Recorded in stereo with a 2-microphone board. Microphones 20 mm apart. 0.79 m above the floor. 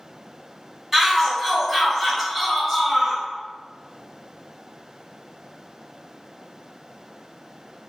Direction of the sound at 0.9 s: 10° right (ahead or behind).